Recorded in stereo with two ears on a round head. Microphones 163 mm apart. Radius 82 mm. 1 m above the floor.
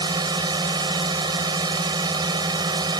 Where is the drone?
25° right (ahead or behind).